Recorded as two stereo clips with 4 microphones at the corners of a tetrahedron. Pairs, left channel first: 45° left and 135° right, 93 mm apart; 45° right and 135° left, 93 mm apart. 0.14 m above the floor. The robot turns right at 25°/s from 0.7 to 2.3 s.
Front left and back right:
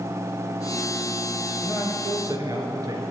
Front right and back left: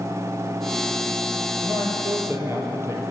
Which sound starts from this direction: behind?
A man speaking, at 1.6 s.